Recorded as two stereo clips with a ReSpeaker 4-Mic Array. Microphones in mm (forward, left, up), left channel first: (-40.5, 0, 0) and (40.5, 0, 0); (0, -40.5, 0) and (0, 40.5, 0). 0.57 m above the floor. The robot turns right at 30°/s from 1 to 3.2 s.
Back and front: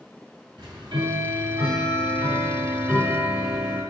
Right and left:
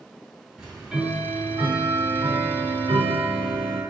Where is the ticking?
10° left, 2.5 m; by 3.8 s 80° left, 2.5 m.